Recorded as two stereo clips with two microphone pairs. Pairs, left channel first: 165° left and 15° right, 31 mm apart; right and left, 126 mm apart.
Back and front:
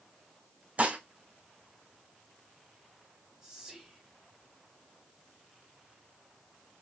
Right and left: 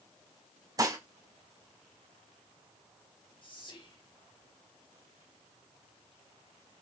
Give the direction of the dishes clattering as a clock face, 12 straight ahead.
11 o'clock.